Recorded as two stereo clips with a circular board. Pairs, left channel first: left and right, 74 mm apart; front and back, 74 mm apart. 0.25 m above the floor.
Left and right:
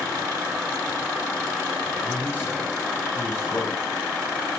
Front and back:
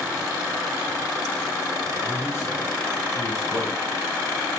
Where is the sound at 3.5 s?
80° left, 3.5 m.